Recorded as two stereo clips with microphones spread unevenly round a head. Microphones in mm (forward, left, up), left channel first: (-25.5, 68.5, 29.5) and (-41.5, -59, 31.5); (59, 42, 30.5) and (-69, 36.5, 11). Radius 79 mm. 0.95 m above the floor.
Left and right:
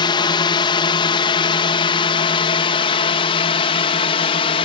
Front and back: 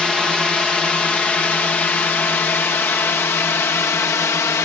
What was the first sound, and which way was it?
A drone, 95° left.